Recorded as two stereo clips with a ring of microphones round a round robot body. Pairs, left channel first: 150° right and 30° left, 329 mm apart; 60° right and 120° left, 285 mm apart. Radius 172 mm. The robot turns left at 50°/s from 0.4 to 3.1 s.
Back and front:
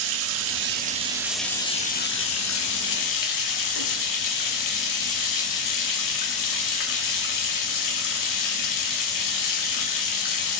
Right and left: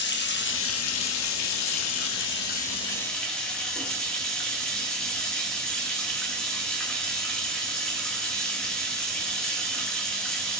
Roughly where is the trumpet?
No trumpet in this recording.